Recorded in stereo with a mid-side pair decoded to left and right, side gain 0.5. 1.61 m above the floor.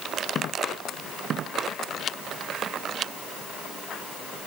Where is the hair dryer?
I don't hear a hair dryer.